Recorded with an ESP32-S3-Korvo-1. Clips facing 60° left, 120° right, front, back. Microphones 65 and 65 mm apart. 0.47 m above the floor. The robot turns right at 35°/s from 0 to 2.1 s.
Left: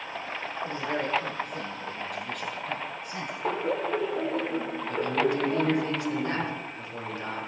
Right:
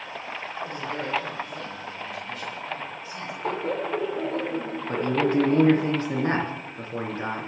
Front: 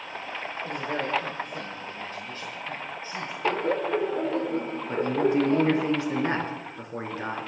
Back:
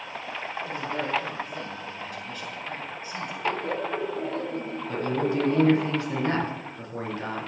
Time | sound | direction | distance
0.7 | a man speaking | straight ahead | 7 m
3.4 | laughter | 25° right | 1.2 m
4.9 | a man speaking | 65° right | 5 m